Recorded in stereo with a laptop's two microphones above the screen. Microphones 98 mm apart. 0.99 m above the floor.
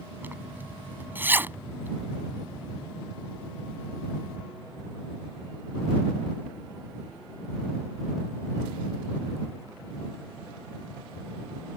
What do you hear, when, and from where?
0.2 s a zipper: 20° right (ahead or behind)